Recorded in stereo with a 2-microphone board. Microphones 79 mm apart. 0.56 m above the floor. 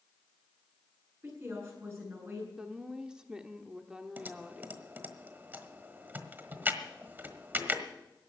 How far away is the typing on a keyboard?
About 1.4 m.